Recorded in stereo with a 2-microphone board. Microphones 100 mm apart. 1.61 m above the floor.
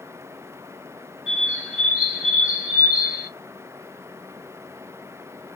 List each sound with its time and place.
1.3 s a bird: 10° right (ahead or behind), 2.5 m